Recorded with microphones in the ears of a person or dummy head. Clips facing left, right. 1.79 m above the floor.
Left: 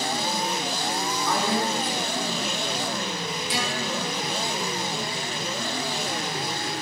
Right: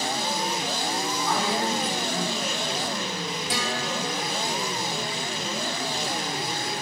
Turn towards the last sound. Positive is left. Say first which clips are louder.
# left 1 dB
turn(degrees=-45)  # may be behind; listen again after turning